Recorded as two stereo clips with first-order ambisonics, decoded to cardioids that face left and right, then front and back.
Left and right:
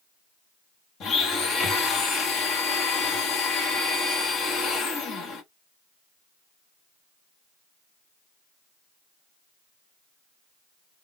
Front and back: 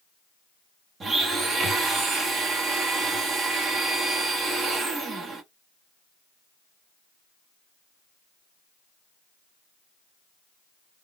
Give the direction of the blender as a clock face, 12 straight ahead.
8 o'clock.